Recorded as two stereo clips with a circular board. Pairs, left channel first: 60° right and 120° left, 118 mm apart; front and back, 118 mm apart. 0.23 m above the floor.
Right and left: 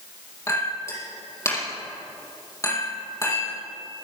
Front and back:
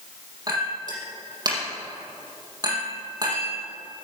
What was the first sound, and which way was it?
A clink, 125° right.